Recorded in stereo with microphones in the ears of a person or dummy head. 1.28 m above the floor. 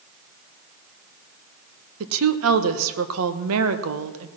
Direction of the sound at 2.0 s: 70° right (ahead or behind).